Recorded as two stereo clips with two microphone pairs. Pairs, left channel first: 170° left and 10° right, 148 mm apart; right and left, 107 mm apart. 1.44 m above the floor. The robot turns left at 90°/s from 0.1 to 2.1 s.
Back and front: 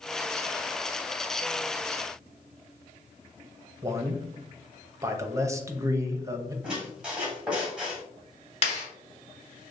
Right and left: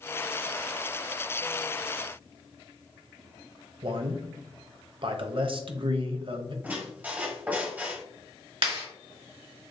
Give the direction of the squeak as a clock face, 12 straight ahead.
10 o'clock.